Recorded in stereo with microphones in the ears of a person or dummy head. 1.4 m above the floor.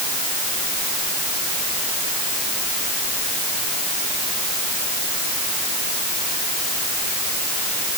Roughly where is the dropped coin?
I don't hear a dropped coin.